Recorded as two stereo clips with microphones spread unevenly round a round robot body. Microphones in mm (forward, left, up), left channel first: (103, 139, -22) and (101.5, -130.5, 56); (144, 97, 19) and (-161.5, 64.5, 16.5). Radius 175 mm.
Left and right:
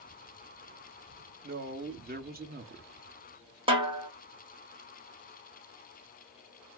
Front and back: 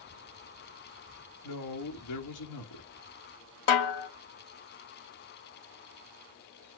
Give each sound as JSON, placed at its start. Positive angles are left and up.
{"t": 1.4, "sound": "a man speaking", "azimuth_deg": -25, "distance_m": 1.5}
{"t": 3.7, "sound": "a snare drum", "azimuth_deg": -15, "distance_m": 1.9}